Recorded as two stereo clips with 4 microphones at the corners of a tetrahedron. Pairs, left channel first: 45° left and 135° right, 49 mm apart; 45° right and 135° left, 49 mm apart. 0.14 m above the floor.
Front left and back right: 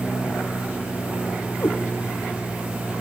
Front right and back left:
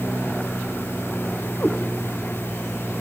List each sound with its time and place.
1.6 s a cat meowing: 5° left, 2.5 m